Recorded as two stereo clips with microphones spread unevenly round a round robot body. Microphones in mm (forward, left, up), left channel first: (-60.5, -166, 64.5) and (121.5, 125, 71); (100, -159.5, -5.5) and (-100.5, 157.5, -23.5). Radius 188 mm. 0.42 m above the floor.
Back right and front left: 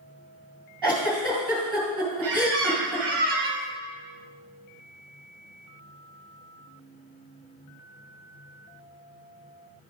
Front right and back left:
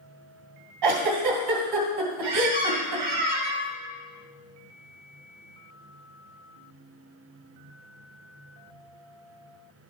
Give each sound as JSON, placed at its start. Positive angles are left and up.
{"t": 0.8, "sound": "a giggle", "azimuth_deg": 145, "distance_m": 2.5}
{"t": 2.2, "sound": "a squeak", "azimuth_deg": 110, "distance_m": 1.9}